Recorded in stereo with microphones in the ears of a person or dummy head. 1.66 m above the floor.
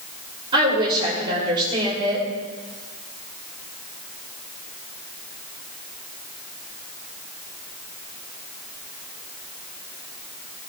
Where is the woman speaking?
25° right (ahead or behind), 6 m.